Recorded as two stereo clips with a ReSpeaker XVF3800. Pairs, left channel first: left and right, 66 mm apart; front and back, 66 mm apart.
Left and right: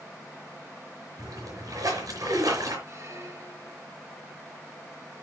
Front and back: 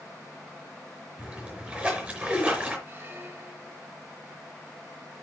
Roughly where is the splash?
Right.